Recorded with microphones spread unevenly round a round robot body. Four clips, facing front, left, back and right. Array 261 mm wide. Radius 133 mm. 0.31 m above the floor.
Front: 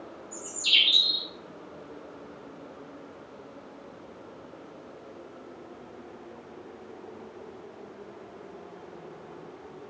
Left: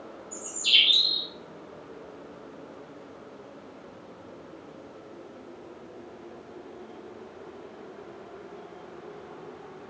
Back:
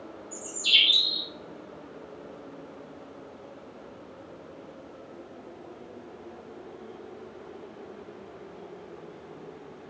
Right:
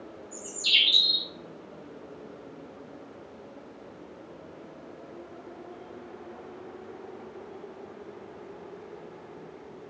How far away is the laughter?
No laughter in this recording.